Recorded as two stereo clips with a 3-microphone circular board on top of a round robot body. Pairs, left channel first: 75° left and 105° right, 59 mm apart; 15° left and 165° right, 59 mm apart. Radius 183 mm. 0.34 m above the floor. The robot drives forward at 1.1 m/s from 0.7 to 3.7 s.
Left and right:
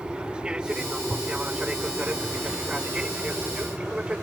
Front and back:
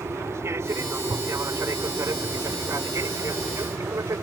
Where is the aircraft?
175° right.